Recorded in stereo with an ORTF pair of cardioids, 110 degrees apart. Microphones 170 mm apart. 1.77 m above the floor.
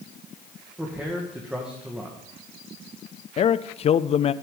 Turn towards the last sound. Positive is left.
turn(degrees=35)